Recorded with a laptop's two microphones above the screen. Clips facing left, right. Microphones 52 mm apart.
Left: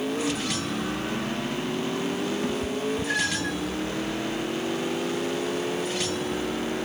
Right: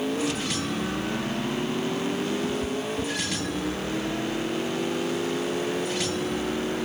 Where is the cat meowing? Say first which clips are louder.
Left 1 dB; 30° left (ahead or behind); by 3.5 s 45° left (ahead or behind).